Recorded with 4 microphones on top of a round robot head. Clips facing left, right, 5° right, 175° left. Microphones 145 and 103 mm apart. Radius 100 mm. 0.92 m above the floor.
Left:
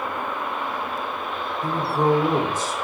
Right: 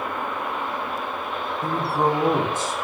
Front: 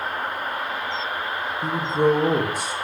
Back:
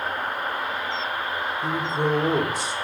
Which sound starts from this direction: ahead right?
A man speaking, at 1.6 s.